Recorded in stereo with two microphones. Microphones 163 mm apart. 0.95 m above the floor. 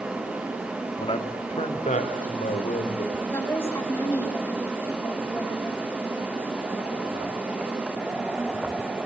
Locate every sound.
1.0 s a man speaking: 35° left (ahead or behind), 1.8 m; by 3.2 s 55° left (ahead or behind), 4 m
3.3 s a woman speaking: 15° left (ahead or behind), 5.5 m